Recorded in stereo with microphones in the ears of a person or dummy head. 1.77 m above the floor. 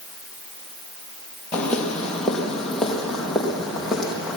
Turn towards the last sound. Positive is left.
turn(degrees=-5)  # may be behind; listen again after turning